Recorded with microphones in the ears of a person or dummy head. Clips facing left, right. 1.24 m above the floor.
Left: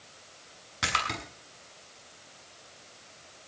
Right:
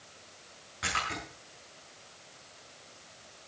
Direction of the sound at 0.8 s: 65° left (ahead or behind).